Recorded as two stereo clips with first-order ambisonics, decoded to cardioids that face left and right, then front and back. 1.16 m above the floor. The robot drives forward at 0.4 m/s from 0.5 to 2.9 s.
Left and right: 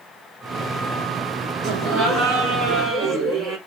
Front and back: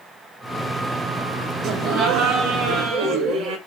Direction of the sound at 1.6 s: 130° right.